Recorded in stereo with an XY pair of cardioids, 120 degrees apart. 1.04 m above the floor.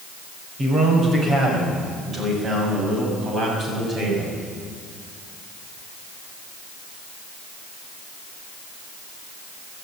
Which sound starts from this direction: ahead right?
A man speaking, at 0.6 s.